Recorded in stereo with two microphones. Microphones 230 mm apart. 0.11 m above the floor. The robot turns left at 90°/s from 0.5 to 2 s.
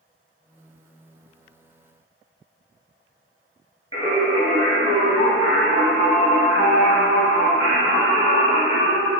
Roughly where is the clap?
I don't hear a clap.